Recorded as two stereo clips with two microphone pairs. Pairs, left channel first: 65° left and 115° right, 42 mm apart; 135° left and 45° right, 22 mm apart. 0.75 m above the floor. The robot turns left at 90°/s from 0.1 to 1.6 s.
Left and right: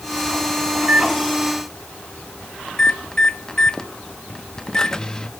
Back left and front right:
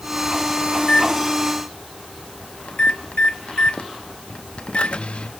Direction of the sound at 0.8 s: 150° right.